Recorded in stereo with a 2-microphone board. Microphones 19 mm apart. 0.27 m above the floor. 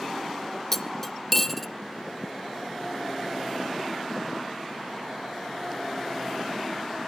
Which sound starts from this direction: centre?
Cutlery clinking, at 0.7 s.